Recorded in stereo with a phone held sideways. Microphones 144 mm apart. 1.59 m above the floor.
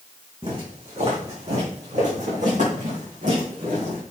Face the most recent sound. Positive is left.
turn(degrees=-75)  # may be behind; listen again after turning